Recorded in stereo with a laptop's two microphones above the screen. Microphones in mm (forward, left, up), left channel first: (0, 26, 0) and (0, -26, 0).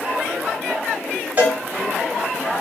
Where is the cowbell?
30° right (ahead or behind), 1.1 m.